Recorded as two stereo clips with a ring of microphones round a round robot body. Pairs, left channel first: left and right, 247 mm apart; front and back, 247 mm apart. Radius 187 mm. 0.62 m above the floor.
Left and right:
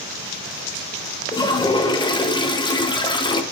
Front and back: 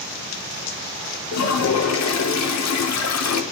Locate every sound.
1.3 s a toilet flushing: 15° left, 1.0 m